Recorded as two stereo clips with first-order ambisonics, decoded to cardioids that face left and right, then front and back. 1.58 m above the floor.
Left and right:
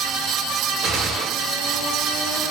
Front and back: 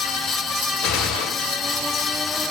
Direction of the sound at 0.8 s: 25° right.